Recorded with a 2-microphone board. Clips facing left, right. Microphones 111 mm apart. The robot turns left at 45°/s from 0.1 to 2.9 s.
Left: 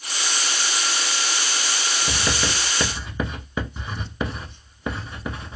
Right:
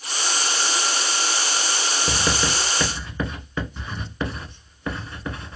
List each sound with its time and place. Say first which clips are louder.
2.1 s writing: right 2 dB; 20° right (ahead or behind), 0.7 m; by 5.6 s 15° left (ahead or behind), 0.7 m